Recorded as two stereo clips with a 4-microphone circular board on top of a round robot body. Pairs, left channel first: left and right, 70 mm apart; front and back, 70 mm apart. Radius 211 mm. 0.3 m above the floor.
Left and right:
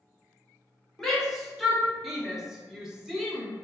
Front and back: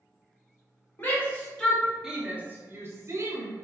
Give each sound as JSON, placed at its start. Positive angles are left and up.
{"t": 1.0, "sound": "a shout", "azimuth_deg": 10, "distance_m": 1.1}